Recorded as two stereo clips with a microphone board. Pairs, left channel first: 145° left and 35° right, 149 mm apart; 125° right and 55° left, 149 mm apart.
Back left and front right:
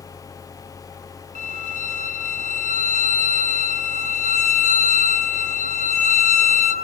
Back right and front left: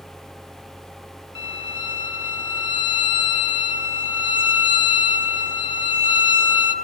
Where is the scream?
I don't hear a scream.